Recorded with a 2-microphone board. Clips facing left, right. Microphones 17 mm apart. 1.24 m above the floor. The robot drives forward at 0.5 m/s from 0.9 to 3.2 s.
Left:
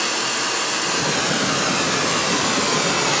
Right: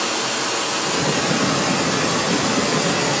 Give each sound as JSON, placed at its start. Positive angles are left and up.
{"t": 0.0, "sound": "running water", "side_deg": 30, "distance_m": 4.5}